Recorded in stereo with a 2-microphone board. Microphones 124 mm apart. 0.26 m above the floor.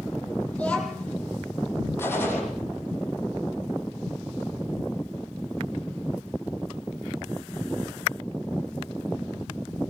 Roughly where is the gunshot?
Centre.